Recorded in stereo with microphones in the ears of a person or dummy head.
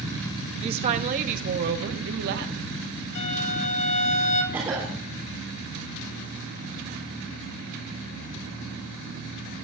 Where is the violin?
65° left (ahead or behind), 1.7 m.